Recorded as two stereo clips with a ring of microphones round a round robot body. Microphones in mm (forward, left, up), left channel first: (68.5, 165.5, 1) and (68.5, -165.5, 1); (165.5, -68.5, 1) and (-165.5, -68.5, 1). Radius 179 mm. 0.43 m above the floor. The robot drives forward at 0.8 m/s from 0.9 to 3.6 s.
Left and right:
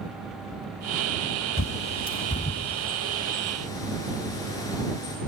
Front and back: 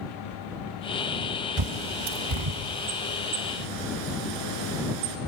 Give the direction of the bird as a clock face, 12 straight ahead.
7 o'clock.